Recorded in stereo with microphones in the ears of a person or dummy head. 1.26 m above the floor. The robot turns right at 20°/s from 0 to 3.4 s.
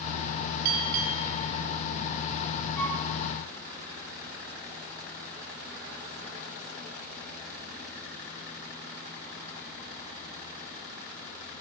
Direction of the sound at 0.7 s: 55° right (ahead or behind).